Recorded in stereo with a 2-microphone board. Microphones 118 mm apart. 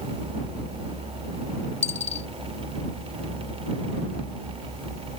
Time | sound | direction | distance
1.8 | a dropped coin | 80° left | ?